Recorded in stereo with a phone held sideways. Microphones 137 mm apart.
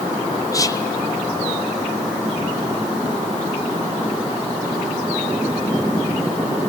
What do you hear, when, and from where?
0.5 s whispering: 25° left (ahead or behind), 0.5 m